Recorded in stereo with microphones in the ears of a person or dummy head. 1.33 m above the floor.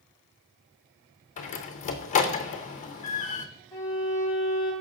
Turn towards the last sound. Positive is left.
turn(degrees=10)  # may be behind; listen again after turning